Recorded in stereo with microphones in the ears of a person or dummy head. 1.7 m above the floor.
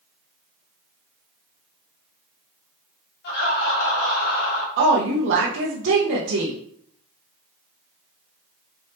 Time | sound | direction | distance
3.2 | laughter | 60° left (ahead or behind) | 2.5 m
4.8 | a woman speaking | 70° right (ahead or behind) | 0.7 m